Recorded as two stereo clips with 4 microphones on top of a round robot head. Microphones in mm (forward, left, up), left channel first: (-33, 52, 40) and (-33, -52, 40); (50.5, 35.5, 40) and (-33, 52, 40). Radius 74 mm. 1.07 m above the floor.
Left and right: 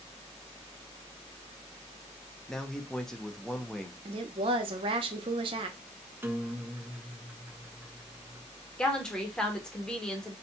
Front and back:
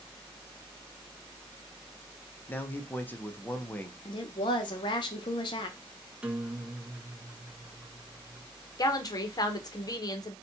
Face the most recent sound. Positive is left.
turn(degrees=10)